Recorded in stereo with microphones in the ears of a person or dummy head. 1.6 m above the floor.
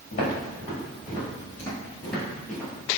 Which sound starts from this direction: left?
Footsteps, at 0.1 s.